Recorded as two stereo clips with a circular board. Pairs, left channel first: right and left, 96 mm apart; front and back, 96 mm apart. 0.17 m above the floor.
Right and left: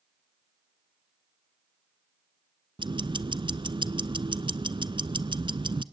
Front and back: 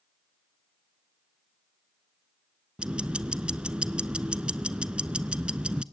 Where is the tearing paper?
I don't hear tearing paper.